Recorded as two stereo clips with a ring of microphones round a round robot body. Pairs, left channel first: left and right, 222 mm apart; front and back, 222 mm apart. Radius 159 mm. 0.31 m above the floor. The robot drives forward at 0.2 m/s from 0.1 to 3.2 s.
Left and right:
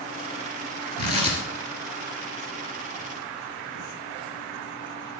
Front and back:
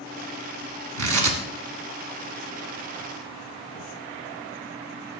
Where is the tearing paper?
160° right, 1.5 m; by 3.9 s 165° right, 1.9 m.